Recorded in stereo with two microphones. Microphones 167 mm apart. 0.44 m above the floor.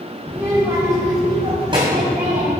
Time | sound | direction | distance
0.3 | a child speaking | 10° right (ahead or behind) | 1.6 m